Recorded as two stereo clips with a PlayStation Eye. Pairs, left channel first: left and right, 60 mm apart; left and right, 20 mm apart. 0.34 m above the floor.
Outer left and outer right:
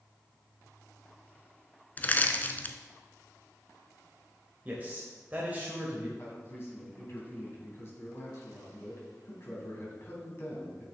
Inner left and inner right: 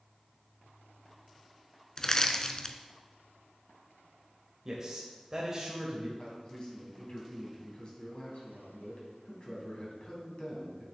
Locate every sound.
2.0 s crushing: 30° left (ahead or behind), 0.6 m
4.7 s a man speaking: 30° right (ahead or behind), 1.2 m
6.2 s a man speaking: 45° left (ahead or behind), 2.5 m